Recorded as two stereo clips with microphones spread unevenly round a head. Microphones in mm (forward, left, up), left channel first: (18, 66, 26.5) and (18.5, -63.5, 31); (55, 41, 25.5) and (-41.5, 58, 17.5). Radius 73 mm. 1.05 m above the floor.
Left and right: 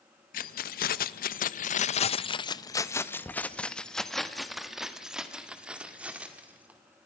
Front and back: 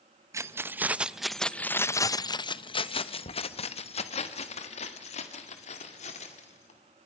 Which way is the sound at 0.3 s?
110° left.